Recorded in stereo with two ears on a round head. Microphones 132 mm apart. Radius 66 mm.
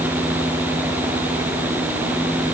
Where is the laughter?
I don't hear laughter.